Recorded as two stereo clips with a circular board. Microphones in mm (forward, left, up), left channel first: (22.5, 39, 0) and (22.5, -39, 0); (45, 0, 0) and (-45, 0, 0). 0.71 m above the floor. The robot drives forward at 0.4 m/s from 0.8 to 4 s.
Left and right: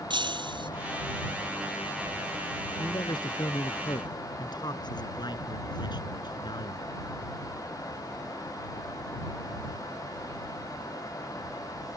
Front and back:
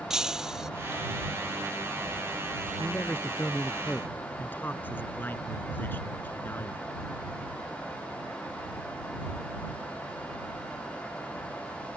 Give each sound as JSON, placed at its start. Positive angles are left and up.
{"t": 0.1, "sound": "breaking glass", "azimuth_deg": -95}
{"t": 2.8, "sound": "a man speaking", "azimuth_deg": 65}